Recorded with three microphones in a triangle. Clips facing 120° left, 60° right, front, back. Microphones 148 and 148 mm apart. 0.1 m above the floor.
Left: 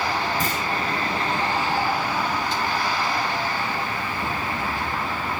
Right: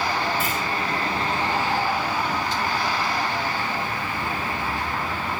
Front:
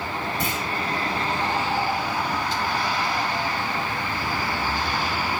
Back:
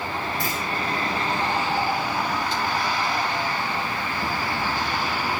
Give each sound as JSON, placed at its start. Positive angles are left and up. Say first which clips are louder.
{"t": 0.4, "sound": "a clunk", "louder": "even, front 1 dB", "azimuth_deg": 70, "distance_m": 6.0}